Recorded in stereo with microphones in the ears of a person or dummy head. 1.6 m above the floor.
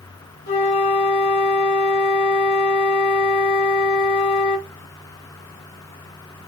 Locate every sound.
0.5 s a flute: 40° left (ahead or behind), 1.4 m